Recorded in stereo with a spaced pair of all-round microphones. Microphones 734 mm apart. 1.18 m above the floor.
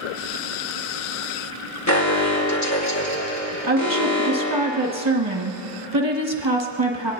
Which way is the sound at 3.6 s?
25° right (ahead or behind).